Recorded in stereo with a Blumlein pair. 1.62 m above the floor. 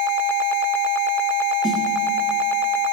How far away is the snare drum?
About 3 m.